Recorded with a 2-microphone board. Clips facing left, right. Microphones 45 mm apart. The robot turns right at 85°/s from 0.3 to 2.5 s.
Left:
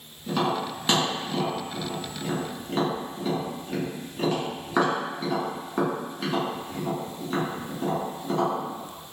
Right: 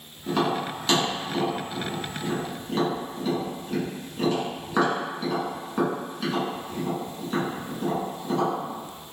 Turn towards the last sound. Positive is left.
turn(degrees=10)  # may be behind; listen again after turning